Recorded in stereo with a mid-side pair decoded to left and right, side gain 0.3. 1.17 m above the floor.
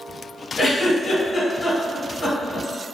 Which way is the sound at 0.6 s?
50° left.